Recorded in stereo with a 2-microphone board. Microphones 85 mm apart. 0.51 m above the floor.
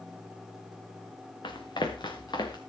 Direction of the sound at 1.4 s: 65° left (ahead or behind).